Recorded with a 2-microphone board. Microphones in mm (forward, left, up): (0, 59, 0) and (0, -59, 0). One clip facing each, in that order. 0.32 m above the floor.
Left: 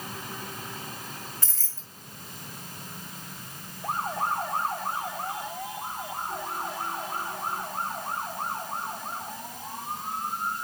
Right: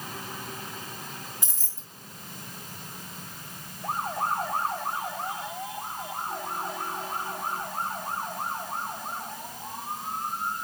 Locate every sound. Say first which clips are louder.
1.4 s keys jangling: right 1 dB; 15° right (ahead or behind), 0.7 m